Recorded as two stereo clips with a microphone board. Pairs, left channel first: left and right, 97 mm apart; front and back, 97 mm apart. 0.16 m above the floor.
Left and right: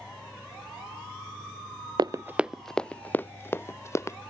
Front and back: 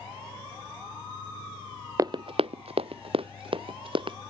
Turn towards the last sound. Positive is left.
turn(degrees=150)